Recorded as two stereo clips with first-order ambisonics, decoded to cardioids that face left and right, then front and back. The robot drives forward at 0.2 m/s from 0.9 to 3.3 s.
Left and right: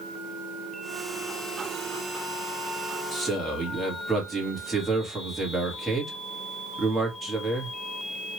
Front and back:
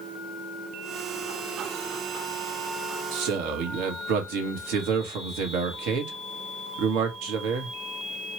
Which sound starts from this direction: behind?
A man speaking, at 3.1 s.